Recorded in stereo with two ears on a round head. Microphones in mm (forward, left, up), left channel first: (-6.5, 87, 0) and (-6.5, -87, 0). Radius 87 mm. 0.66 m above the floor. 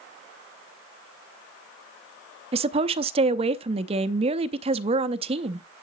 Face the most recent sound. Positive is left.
turn(degrees=-30)  # may be behind; listen again after turning